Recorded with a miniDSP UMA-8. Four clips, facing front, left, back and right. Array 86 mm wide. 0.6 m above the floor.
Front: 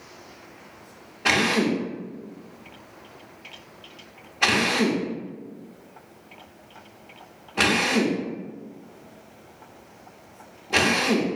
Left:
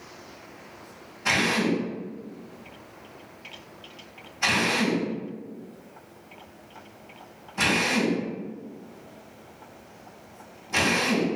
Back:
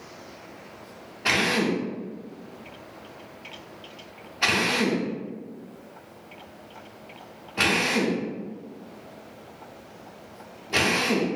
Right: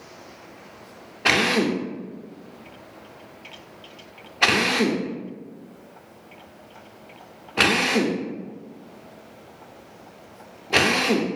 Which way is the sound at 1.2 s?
80° right.